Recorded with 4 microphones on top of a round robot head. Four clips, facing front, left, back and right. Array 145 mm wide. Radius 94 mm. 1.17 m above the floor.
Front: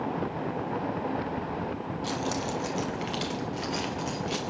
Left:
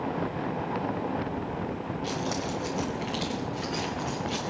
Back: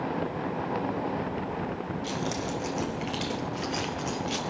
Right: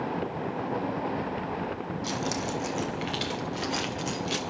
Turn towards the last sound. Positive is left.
turn(degrees=-100)